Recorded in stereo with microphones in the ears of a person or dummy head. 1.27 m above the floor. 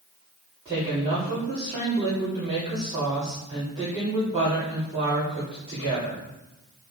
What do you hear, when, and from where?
0.7 s a woman speaking: 25° right (ahead or behind), 2.5 m